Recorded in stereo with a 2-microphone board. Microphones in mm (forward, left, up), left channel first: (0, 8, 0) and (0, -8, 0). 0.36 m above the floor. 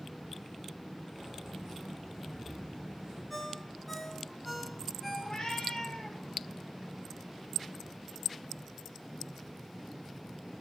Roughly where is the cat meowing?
Left.